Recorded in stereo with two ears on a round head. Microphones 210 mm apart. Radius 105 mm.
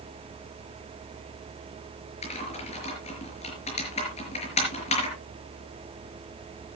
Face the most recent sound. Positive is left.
turn(degrees=30)  # may be behind; listen again after turning